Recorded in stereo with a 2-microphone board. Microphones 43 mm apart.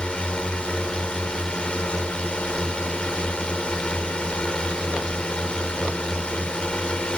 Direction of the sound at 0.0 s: 20° left (ahead or behind).